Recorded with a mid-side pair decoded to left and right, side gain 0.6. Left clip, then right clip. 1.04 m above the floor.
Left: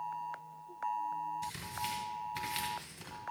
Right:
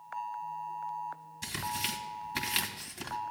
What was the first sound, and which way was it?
Tearing paper, 50° right.